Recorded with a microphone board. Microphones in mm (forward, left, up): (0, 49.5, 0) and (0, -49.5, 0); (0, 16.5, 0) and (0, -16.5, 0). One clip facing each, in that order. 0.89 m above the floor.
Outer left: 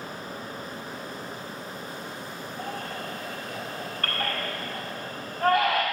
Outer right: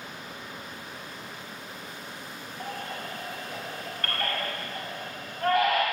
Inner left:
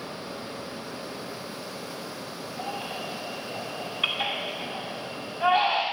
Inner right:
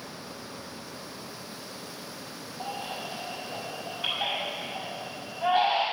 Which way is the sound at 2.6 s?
80° left.